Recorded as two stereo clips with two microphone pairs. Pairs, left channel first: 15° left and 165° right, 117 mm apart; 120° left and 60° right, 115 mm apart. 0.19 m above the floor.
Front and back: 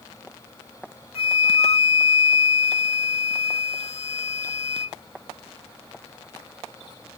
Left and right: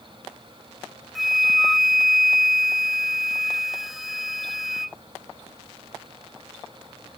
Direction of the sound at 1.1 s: 25° left.